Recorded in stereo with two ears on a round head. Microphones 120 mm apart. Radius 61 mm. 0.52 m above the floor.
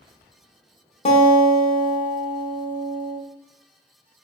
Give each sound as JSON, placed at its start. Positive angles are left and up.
{"t": 1.1, "sound": "a guitar", "side_deg": 45, "distance_m": 0.6}